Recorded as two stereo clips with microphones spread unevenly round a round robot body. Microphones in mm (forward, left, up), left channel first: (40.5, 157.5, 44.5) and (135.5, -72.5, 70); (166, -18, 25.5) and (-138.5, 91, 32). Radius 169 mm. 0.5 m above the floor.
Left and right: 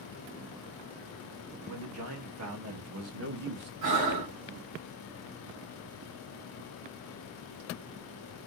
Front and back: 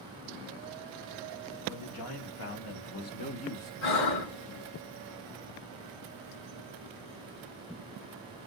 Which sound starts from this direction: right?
Breathing, at 3.8 s.